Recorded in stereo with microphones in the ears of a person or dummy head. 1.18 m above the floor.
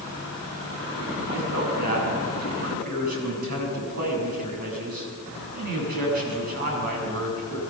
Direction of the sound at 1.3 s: 45° right (ahead or behind).